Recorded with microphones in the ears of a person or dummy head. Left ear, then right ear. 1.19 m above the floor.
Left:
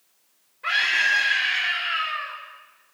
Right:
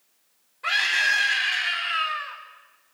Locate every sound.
0.6 s a scream: 30° right (ahead or behind), 4.5 m